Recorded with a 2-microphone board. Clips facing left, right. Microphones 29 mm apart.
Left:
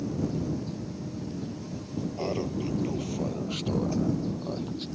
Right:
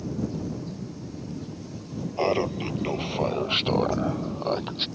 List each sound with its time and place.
2.2 s laughter: 40° right (ahead or behind); by 4.9 s 55° right (ahead or behind)